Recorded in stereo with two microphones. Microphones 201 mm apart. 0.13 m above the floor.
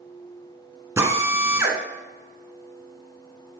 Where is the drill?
15° right (ahead or behind), 1.7 m.